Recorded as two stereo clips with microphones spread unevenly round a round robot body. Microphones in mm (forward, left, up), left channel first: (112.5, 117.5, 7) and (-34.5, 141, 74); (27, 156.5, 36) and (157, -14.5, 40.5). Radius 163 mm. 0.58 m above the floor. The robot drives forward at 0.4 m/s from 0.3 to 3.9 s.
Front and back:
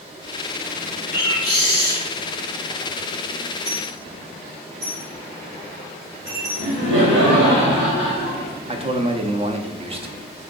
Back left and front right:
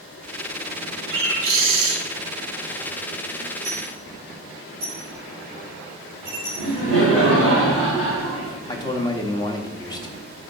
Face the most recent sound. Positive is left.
turn(degrees=110)